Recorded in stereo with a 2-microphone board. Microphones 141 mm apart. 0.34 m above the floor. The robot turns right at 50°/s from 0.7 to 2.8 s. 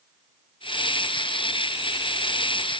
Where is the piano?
No piano in this recording.